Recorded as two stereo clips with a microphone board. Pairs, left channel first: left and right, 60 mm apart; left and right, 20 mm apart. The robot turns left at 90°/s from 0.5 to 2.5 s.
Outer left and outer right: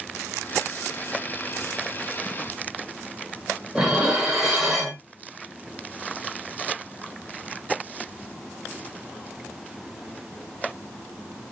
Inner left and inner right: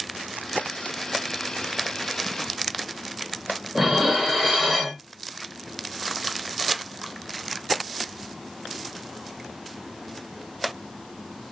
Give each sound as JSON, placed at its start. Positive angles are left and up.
{"t": 3.8, "sound": "dishes clattering", "side_deg": -10, "distance_m": 1.3}